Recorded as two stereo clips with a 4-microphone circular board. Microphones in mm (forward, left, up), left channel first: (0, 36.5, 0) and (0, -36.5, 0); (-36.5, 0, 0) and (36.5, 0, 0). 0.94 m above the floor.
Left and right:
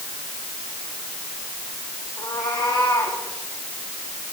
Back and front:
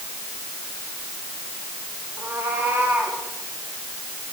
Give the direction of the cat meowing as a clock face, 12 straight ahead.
10 o'clock.